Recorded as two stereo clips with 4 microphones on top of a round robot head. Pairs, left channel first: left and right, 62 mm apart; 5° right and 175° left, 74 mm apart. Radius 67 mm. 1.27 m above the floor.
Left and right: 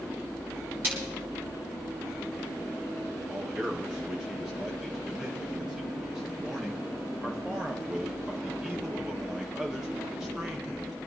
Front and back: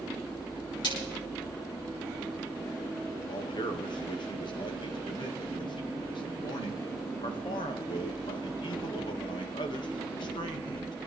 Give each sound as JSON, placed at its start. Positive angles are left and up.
{"t": 0.8, "sound": "a splash", "azimuth_deg": -25, "distance_m": 6.5}
{"t": 3.3, "sound": "a man speaking", "azimuth_deg": -10, "distance_m": 1.9}